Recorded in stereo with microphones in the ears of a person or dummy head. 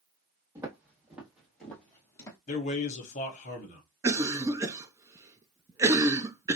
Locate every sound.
0.6 s footsteps: 15° right (ahead or behind), 2 m; by 2.4 s 15° left (ahead or behind), 1.5 m
2.5 s a man speaking: 40° left (ahead or behind), 1.4 m
4.0 s a cough: 10° right (ahead or behind), 0.5 m